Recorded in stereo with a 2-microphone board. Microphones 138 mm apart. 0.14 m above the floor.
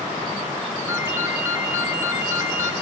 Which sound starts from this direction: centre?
A ringtone, at 0.9 s.